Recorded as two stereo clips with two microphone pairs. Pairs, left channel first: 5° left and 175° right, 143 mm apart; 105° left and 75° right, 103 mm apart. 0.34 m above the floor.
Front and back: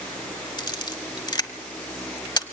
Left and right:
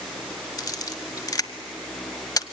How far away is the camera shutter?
About 1.1 m.